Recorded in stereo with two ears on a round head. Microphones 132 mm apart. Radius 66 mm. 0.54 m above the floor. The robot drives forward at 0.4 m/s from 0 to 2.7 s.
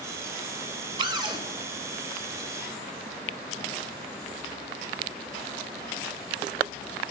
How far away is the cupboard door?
About 1.8 m.